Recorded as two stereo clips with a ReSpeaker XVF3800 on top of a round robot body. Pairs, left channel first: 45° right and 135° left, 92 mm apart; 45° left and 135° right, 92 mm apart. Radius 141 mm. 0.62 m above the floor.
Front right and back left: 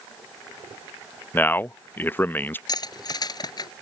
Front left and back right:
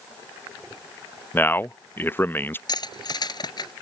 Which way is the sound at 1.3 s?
Straight ahead.